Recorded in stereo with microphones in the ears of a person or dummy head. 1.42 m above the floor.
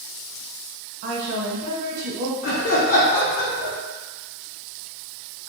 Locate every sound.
1.0 s a woman speaking: 65° right (ahead or behind), 1.0 m
2.4 s laughter: 45° left (ahead or behind), 0.9 m